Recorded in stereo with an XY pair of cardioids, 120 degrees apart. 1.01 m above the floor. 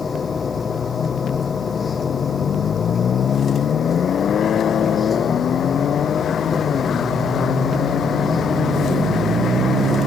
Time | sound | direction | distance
0.0 | a machine running | 30° left | ?